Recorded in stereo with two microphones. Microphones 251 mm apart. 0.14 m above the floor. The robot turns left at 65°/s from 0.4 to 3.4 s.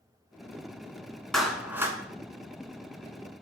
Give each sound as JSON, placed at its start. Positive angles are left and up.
{"t": 1.3, "sound": "a clap", "side_deg": 0, "distance_m": 1.1}